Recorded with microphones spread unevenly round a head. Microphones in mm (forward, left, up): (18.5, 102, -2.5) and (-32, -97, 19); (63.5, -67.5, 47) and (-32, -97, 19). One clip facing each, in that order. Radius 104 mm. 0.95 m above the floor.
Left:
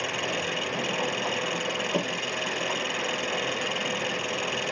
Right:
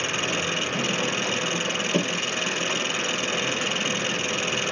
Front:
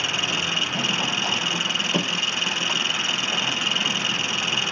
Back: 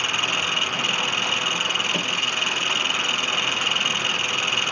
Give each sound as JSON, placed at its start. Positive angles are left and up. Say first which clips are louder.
{"t": 0.0, "sound": "an engine running", "louder": "right 2 dB, back 1 dB", "azimuth_deg": -40}